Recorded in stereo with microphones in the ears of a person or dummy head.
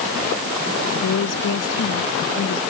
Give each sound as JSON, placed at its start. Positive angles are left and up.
{"t": 0.9, "sound": "a woman speaking", "side_deg": 80}